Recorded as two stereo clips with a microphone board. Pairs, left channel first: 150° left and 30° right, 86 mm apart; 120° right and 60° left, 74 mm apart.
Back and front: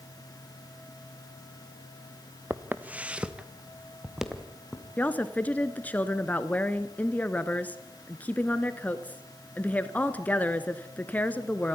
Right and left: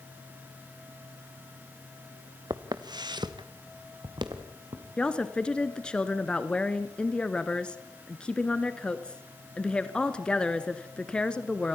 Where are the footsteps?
35° left, 1.1 m; by 4.8 s 55° left, 3 m.